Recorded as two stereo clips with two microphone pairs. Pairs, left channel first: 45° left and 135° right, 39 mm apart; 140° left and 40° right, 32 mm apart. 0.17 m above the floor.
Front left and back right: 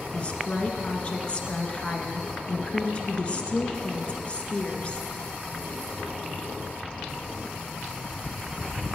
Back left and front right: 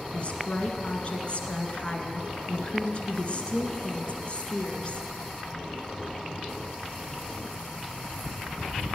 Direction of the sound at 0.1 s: 95° left.